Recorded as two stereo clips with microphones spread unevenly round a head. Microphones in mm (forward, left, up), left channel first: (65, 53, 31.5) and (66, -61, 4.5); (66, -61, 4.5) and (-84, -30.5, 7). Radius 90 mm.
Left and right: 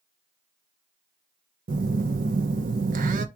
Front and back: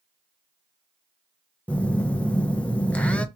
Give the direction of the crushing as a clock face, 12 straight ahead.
I don't hear crushing.